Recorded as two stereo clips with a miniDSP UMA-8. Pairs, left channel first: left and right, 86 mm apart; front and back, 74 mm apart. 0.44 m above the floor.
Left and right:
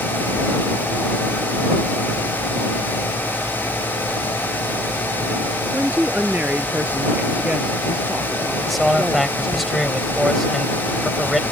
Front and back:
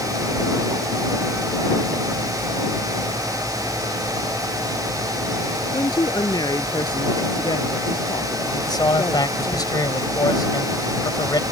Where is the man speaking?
Straight ahead.